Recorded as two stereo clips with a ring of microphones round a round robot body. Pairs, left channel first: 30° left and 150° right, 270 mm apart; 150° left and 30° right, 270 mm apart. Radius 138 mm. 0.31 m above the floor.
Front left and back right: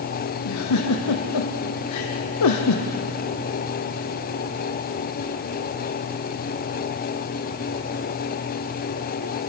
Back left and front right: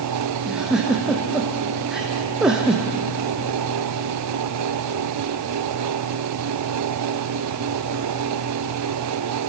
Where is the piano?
No piano in this recording.